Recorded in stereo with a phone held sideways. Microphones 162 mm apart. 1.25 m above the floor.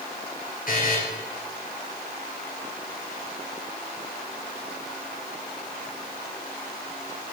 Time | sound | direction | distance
0.7 | a buzzer | 60° left (ahead or behind) | 5 m